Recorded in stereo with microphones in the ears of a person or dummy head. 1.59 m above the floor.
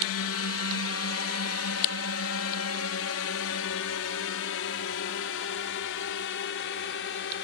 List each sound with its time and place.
0.0 s a drone: 65° left (ahead or behind); by 7.5 s 60° left (ahead or behind)